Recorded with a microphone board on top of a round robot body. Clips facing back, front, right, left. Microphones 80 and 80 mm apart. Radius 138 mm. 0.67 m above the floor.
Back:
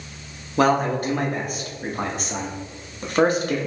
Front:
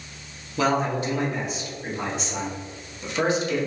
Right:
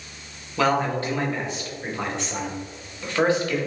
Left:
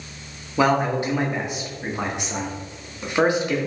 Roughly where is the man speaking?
Behind.